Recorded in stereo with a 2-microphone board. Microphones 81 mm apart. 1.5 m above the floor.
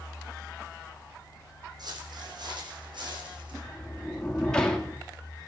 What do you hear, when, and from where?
1.8 s footsteps: 60° right (ahead or behind), 4.5 m; by 3.5 s 75° right (ahead or behind), 5 m
3.6 s a sliding door: 10° left (ahead or behind), 1.9 m